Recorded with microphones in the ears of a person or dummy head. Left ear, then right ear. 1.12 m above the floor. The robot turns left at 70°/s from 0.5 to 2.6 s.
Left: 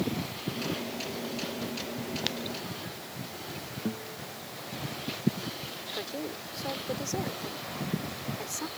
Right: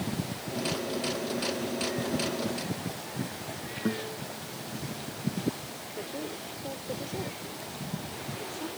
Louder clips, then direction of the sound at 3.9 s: Right 6 dB; 85° right.